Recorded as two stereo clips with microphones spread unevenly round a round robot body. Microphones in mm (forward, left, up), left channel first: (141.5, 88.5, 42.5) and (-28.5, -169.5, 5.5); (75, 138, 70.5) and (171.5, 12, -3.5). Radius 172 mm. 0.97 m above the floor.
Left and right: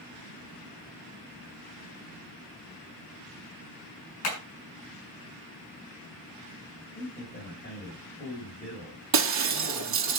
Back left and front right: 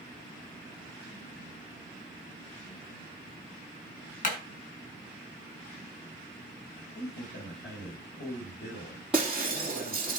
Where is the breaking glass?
150° right, 2.5 m.